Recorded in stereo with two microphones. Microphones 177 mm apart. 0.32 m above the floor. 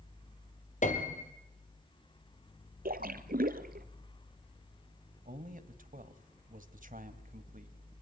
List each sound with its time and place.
0.8 s a piano: 45° left (ahead or behind), 2 m
2.9 s a splash: 55° right (ahead or behind), 1.1 m
5.2 s a man speaking: 50° right (ahead or behind), 1.7 m